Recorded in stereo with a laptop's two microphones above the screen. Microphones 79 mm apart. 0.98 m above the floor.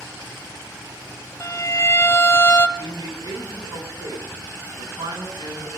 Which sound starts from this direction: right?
A man speaking, at 2.8 s.